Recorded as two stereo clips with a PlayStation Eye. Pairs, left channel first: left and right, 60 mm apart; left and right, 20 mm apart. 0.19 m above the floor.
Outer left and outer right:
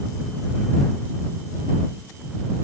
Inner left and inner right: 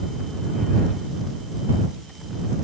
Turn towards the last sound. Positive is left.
No sound to turn to.